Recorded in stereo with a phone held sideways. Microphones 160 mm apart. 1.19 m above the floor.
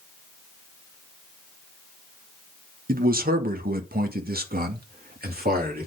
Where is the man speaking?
65° right (ahead or behind), 1.1 m; by 5.9 s 70° right (ahead or behind), 2.5 m.